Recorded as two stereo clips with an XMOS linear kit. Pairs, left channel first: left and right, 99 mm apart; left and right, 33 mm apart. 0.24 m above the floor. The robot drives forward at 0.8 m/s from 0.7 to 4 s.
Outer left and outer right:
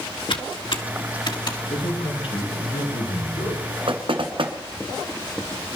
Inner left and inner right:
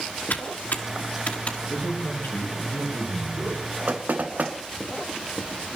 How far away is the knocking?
About 1.9 m.